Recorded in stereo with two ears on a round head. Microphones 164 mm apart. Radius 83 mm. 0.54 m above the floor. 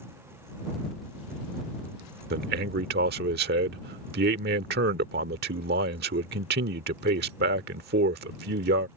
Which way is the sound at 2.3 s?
60° right (ahead or behind).